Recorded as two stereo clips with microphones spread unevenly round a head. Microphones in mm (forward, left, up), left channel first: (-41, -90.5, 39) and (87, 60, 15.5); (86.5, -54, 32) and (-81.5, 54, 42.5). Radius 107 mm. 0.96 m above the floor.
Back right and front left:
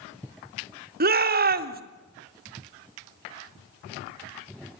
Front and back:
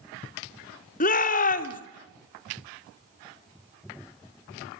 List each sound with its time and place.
1.0 s a shout: 15° left, 3 m